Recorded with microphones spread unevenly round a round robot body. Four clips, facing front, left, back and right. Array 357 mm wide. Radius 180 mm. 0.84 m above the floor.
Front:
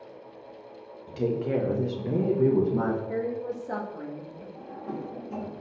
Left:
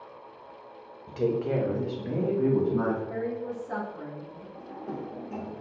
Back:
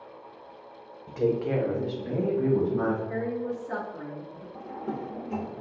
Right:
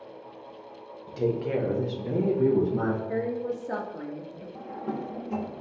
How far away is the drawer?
About 0.7 m.